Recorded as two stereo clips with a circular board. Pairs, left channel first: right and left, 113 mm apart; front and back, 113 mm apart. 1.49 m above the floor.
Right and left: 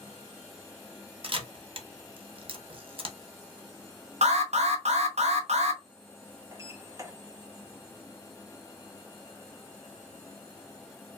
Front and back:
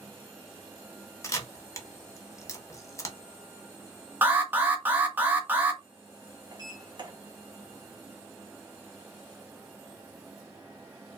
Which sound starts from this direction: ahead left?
A camera shutter, at 1.2 s.